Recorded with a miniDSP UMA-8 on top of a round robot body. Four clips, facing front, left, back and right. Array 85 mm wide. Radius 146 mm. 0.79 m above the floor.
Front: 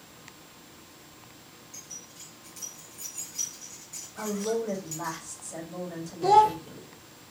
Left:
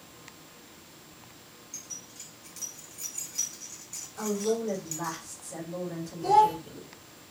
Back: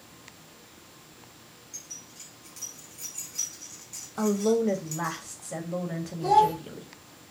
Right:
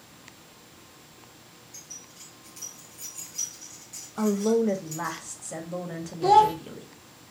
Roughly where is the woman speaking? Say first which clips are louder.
Right 6 dB, back 6 dB; behind right.